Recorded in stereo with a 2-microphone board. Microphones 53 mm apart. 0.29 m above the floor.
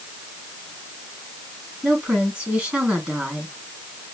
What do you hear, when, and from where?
1.8 s a woman speaking: 25° right (ahead or behind), 4 m